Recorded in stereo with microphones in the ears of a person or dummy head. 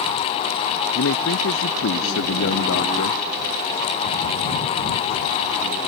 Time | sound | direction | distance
0.9 | a man speaking | 80° left | ?